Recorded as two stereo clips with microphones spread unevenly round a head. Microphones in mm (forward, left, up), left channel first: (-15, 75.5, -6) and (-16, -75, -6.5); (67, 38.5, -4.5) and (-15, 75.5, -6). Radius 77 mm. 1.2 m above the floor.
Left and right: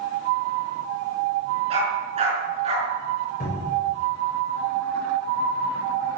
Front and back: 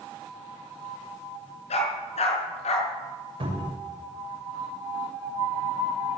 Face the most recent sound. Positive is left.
turn(degrees=135)